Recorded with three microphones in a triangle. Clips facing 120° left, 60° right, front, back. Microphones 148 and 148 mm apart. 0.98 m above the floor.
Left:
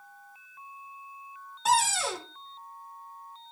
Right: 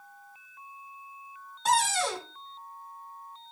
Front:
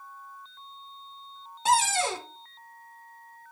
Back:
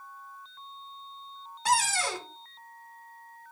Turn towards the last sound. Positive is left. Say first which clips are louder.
# even, front 3 dB
turn(degrees=35)